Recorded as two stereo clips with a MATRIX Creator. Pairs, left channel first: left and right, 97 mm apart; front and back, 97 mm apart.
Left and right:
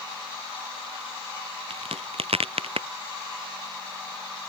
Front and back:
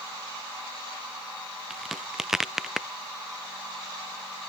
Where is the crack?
95° right.